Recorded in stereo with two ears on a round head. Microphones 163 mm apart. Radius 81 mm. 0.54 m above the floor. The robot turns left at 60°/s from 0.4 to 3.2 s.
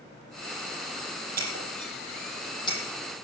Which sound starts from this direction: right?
Breaking glass, at 1.4 s.